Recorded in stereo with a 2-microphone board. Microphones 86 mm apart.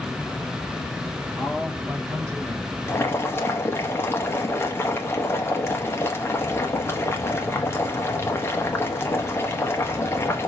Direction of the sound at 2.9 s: 25° left (ahead or behind).